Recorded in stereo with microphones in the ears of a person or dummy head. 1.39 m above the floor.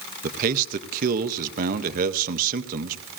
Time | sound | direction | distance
0.2 | a man speaking | 45° right (ahead or behind) | 0.5 m